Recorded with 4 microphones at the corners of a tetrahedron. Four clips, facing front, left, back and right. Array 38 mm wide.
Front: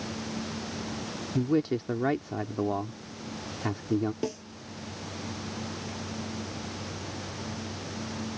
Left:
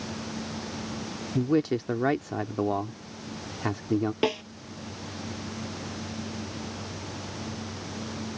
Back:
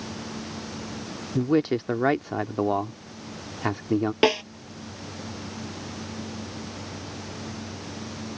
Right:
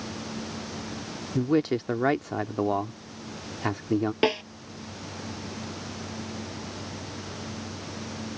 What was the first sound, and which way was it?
A man speaking, 165° right.